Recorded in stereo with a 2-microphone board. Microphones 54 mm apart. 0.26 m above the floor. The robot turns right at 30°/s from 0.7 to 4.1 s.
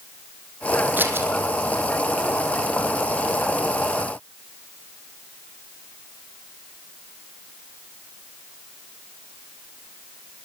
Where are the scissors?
40° right (ahead or behind), 3 m; by 1.3 s 50° right (ahead or behind), 3 m.